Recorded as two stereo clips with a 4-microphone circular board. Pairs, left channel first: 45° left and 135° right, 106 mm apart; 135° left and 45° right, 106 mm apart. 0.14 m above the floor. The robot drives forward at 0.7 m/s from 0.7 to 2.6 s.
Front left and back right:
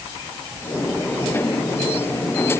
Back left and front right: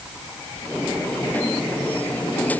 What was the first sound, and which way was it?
Only background noise.